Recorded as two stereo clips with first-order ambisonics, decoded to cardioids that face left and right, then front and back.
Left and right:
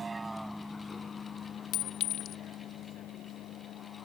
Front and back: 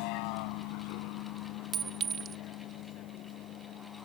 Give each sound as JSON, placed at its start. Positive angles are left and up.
{"t": 0.0, "sound": "a vehicle", "azimuth_deg": -20}
{"t": 1.7, "sound": "a clink", "azimuth_deg": 120}